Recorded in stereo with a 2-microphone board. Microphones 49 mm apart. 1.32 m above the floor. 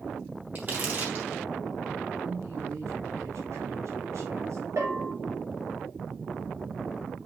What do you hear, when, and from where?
0.6 s crumpling: 40° right (ahead or behind), 5.5 m
2.2 s a man speaking: 85° right, 3.5 m
4.8 s a bell: 75° right (ahead or behind), 6.5 m